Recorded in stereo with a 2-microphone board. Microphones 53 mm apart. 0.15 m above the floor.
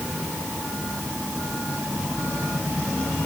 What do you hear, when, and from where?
Only background noise.